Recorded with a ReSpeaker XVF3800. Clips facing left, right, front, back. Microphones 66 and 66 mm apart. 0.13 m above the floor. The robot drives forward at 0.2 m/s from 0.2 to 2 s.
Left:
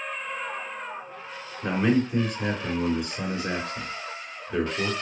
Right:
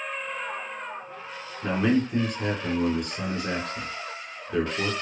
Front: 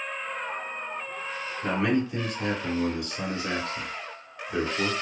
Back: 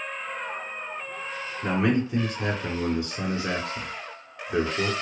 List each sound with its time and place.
1.6 s a man speaking: 165° left, 1.2 m